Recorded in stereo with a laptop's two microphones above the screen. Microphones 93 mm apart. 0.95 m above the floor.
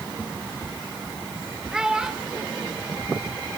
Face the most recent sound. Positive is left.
turn(degrees=-10)  # may be behind; listen again after turning